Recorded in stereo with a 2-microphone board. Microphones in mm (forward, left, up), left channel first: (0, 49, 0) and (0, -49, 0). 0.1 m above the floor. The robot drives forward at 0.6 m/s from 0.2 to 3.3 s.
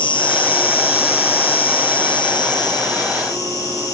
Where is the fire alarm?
I don't hear a fire alarm.